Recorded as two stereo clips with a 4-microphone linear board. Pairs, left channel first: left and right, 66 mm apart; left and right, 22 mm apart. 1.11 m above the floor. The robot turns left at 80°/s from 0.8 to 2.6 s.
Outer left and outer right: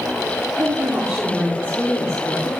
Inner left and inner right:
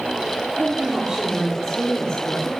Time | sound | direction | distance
0.6 | a woman speaking | 125° right | 4 m